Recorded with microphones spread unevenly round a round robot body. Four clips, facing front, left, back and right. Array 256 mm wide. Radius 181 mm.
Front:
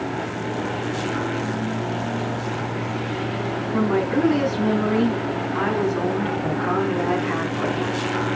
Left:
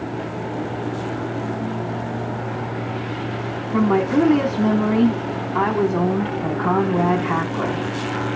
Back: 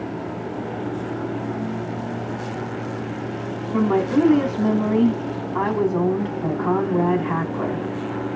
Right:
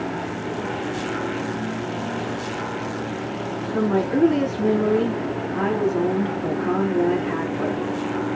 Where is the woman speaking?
100° left, 4.5 m.